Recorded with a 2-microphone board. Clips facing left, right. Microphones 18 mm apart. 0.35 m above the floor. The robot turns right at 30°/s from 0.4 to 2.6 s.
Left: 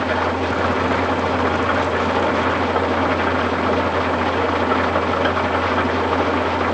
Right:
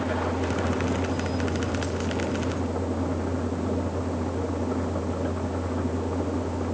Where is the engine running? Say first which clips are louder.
Left 8 dB; 45° left; by 6.7 s 115° left.